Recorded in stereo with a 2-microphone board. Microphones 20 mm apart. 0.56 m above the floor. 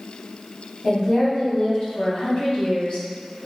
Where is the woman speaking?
55° left (ahead or behind), 1.8 m.